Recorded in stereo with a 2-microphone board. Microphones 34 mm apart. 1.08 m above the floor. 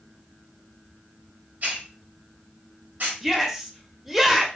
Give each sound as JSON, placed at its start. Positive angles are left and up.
{"t": 1.6, "sound": "a hiss", "side_deg": -60, "distance_m": 1.1}
{"t": 3.2, "sound": "a shout", "side_deg": -5, "distance_m": 0.8}